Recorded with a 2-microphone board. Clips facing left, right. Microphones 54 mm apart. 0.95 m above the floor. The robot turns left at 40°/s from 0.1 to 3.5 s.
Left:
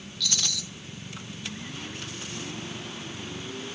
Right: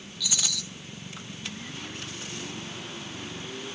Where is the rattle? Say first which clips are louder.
Left 1 dB; 15° right (ahead or behind), 0.7 m; by 0.6 s centre (ahead or behind), 0.7 m.